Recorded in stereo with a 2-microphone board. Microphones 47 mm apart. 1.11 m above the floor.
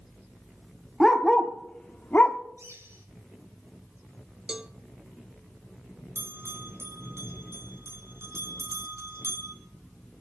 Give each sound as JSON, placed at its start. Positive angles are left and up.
{"t": 1.0, "sound": "a dog barking", "side_deg": 5, "distance_m": 1.4}
{"t": 2.6, "sound": "a bird", "side_deg": -80, "distance_m": 6.5}
{"t": 4.5, "sound": "a cowbell", "side_deg": -20, "distance_m": 0.6}
{"t": 6.2, "sound": "a bell", "side_deg": -70, "distance_m": 3.0}